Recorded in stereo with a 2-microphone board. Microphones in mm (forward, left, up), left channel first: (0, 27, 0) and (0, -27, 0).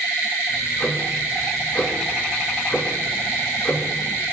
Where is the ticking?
30° left (ahead or behind), 2.5 m.